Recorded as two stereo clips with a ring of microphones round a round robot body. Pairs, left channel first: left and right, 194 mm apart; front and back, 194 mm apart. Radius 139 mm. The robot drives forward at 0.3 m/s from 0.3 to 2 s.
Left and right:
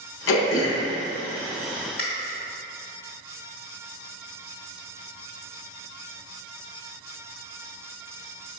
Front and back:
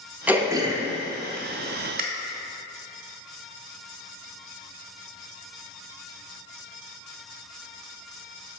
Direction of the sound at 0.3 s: 95° left.